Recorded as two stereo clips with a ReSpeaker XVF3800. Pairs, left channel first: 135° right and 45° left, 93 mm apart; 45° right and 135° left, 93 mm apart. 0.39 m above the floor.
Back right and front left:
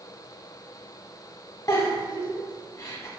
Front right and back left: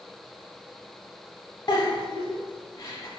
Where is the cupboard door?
I don't hear a cupboard door.